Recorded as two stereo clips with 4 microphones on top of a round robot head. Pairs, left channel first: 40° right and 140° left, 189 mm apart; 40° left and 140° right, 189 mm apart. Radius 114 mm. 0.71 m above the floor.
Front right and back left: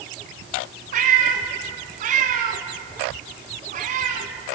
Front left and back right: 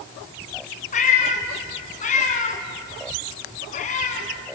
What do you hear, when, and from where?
0.9 s a cat meowing: 90° left, 1.8 m